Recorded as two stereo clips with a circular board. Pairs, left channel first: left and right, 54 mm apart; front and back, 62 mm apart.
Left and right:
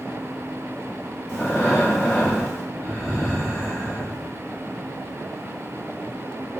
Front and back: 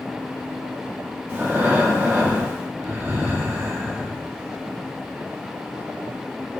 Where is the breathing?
120° left, 1.4 m.